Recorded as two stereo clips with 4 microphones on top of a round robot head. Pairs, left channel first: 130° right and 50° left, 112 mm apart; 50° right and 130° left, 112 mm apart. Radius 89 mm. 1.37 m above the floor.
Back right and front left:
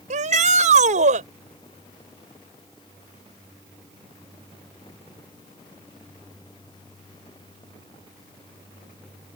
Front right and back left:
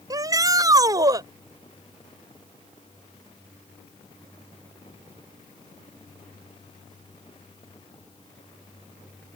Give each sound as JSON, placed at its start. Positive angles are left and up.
{"t": 0.1, "sound": "a shout", "azimuth_deg": 70}